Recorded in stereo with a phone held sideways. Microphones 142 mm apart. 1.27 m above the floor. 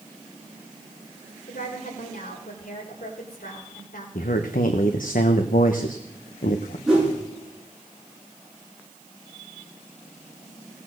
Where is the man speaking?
75° left (ahead or behind), 1.0 m.